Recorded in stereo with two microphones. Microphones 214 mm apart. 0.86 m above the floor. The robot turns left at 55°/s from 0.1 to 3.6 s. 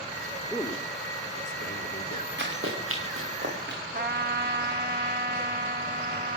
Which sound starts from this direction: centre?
A man speaking, at 0.5 s.